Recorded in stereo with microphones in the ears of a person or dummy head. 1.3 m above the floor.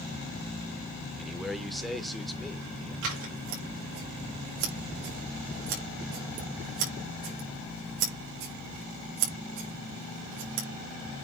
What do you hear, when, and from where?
1.2 s a man speaking: centre (ahead or behind), 1.4 m
3.0 s scissors: 75° right (ahead or behind), 5 m